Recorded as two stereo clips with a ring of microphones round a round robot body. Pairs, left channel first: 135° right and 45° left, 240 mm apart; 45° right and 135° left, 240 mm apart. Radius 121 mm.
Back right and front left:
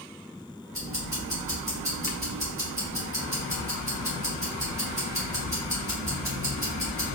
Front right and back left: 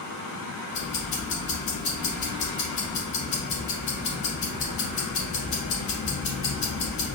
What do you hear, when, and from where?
0.7 s ticking: 35° right, 2.5 m